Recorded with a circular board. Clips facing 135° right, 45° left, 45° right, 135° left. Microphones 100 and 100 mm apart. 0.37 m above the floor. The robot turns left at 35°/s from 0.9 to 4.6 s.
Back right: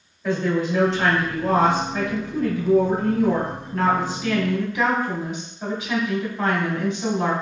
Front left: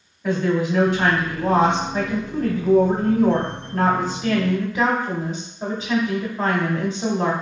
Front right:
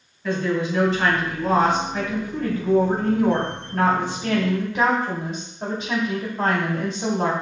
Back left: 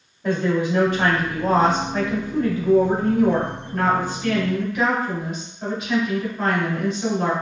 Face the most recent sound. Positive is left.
turn(degrees=0)